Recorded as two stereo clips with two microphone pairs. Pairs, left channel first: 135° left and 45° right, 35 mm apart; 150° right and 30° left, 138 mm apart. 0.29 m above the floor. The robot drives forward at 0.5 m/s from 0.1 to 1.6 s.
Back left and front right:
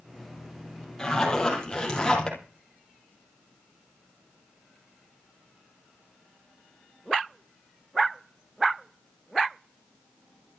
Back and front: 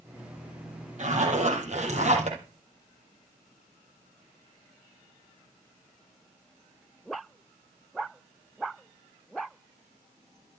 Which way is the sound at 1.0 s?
60° left.